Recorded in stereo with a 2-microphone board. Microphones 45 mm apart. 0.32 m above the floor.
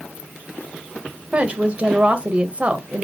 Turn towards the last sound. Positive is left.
turn(degrees=-30)  # may be behind; listen again after turning